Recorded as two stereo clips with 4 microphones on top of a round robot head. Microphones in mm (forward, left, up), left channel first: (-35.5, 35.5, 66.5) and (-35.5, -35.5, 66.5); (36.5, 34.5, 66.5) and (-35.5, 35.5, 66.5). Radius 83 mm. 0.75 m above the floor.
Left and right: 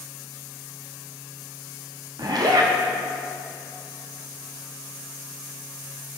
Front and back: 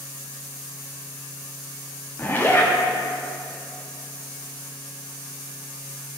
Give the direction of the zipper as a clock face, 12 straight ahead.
2 o'clock.